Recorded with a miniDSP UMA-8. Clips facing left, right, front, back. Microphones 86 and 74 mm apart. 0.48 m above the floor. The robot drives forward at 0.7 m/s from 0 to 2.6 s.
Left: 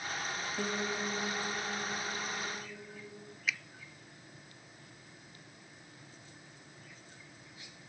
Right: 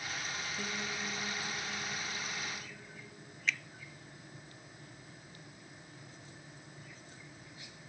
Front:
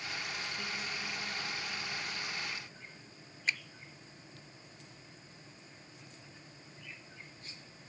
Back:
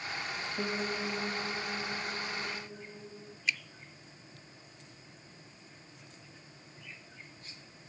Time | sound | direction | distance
0.6 | a piano | 140° left | ?
3.5 | a finger snap | 10° left | ?